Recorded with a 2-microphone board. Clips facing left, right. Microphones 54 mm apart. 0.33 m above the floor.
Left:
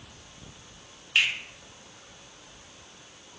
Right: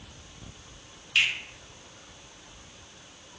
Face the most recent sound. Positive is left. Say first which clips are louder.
# even
turn(degrees=20)  # may be behind; listen again after turning